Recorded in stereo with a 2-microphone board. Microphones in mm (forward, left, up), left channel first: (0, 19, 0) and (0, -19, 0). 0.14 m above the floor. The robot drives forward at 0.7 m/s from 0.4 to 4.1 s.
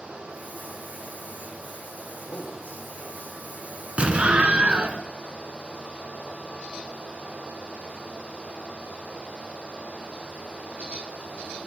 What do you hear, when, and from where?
2.2 s a man speaking: 65° left (ahead or behind), 8.5 m; by 3.9 s 55° left (ahead or behind), 9 m
4.0 s an explosion: 35° right (ahead or behind), 2.0 m